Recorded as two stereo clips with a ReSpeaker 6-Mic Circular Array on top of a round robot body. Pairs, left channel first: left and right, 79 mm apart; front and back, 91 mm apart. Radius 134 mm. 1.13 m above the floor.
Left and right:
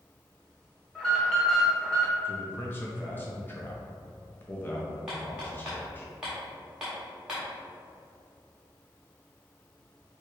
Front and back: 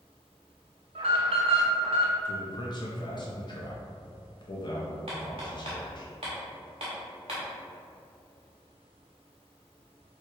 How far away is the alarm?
About 0.8 m.